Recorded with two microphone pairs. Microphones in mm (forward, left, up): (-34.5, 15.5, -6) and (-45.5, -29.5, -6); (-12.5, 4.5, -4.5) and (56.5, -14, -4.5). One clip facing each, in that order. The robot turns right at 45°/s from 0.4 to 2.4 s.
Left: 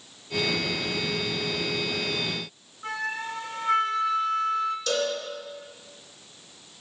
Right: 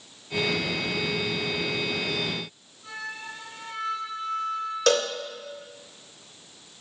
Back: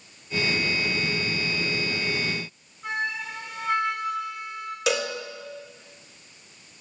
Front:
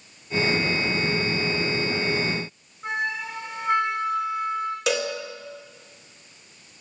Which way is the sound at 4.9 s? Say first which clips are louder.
Right 9 dB, back 1 dB; 105° right.